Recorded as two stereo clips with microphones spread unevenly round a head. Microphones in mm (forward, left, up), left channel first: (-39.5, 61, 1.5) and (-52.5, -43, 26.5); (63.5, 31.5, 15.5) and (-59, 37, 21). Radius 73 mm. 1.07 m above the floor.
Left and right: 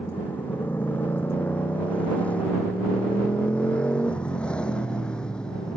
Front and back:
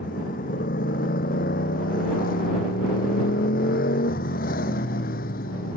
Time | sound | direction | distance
0.0 | a motorcycle | 5° left | ?